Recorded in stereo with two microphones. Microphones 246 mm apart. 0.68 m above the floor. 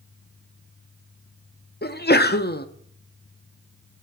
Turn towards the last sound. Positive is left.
turn(degrees=40)  # may be behind; listen again after turning